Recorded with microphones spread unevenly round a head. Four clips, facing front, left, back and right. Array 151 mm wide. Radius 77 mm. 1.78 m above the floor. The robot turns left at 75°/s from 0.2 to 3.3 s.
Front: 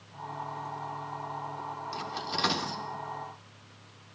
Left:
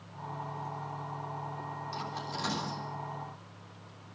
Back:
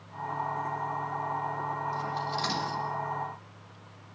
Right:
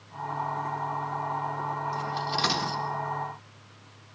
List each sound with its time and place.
1.9 s cutlery clinking: straight ahead, 3 m; by 2.8 s 65° right, 3 m